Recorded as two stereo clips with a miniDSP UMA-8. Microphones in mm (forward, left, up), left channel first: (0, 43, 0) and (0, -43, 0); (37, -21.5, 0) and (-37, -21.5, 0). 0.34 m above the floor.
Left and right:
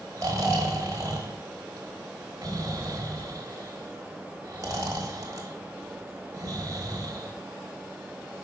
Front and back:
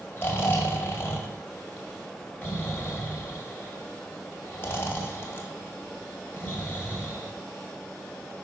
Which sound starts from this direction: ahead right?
Snoring, at 0.2 s.